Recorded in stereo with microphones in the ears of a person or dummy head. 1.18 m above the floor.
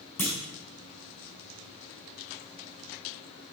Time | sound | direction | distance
0.2 | a clunk | 10° left (ahead or behind) | 0.8 m